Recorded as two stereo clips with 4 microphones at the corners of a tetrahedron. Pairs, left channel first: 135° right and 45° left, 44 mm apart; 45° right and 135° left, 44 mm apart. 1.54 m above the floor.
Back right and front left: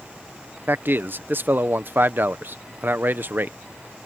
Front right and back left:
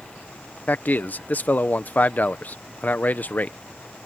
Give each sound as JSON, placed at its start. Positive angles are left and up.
{"t": 0.7, "sound": "a man speaking", "azimuth_deg": 5}